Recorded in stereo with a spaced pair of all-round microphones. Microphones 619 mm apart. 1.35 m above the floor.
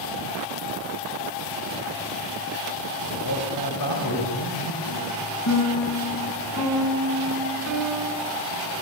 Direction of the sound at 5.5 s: 25° left (ahead or behind).